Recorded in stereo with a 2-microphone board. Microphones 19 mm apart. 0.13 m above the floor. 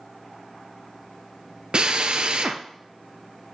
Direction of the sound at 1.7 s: 55° right (ahead or behind).